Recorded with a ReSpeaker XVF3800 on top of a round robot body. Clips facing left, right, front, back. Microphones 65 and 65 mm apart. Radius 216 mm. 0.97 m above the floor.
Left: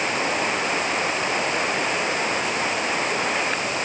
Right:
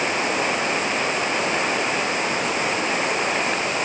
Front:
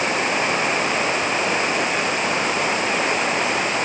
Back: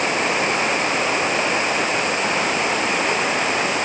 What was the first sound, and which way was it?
Only background noise.